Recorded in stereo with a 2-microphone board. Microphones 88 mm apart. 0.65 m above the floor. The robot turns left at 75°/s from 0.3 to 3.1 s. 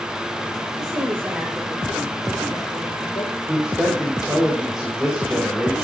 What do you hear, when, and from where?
0.8 s a woman speaking: 115° right, 3 m; by 3.3 s 70° left, 3 m
3.5 s a man speaking: 10° right (ahead or behind), 3 m